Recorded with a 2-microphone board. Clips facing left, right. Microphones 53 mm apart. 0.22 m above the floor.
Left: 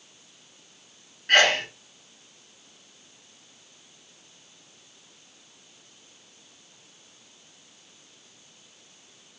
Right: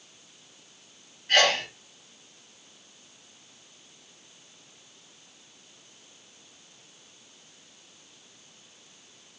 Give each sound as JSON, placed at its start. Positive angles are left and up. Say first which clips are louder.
{"t": 1.3, "sound": "a sneeze", "louder": "left 3 dB", "side_deg": 60, "distance_m": 2.5}